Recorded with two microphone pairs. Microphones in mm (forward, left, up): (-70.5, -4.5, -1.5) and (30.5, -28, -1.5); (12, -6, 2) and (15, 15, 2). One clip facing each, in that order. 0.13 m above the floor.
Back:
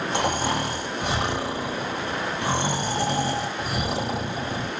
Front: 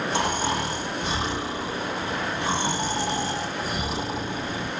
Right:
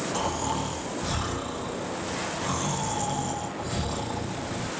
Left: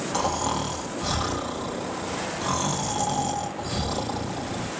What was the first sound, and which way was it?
Snoring, 140° left.